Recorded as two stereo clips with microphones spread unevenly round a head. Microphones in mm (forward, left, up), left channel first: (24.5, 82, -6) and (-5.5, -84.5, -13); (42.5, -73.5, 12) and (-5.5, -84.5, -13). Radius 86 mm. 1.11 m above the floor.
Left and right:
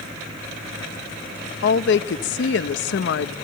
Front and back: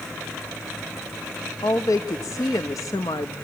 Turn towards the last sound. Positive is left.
turn(degrees=55)